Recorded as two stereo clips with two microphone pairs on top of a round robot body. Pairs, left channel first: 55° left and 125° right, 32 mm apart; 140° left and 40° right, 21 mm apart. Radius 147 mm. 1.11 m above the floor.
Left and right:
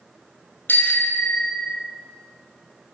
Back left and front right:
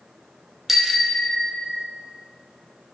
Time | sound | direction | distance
0.7 | a bicycle bell | 40° left | 3 m